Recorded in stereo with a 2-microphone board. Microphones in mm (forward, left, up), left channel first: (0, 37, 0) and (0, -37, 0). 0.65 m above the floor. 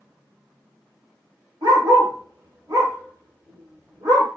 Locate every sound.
1.6 s a dog barking: 60° right (ahead or behind), 1.1 m